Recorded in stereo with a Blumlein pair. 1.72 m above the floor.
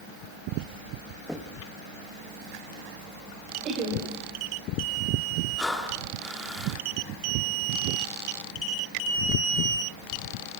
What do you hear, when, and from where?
1.3 s knocking: 5° left, 2 m
3.6 s laughter: 30° right, 7.5 m
5.6 s breathing: 10° left, 3.5 m